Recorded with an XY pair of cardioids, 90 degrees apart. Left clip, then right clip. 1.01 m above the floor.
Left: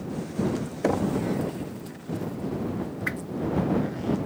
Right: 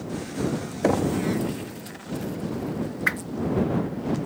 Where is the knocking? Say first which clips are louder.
Right 3 dB; 15° right.